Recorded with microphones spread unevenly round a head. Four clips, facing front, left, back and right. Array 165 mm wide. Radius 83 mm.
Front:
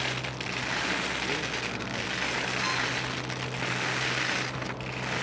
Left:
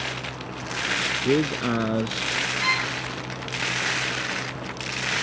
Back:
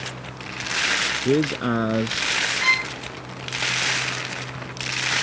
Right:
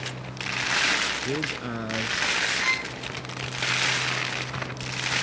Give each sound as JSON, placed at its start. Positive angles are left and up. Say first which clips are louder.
{"t": 1.2, "sound": "a man speaking", "louder": "left 8 dB, back 13 dB", "azimuth_deg": 145}
{"t": 2.6, "sound": "a violin", "louder": "left 4 dB, back 7 dB", "azimuth_deg": 135}